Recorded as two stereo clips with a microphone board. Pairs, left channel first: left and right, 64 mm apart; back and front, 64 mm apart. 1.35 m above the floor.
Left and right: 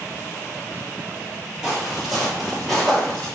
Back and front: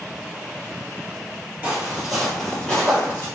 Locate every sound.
1.6 s footsteps: 25° right, 1.4 m; by 3.3 s 160° left, 1.6 m